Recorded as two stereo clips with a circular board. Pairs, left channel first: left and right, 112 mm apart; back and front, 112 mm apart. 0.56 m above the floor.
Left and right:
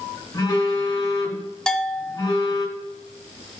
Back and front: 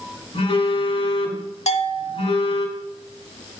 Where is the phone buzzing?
145° left, 2 m.